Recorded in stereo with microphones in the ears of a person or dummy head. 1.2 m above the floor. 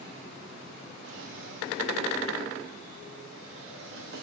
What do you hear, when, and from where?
1.0 s a drawer: 70° right (ahead or behind), 1.0 m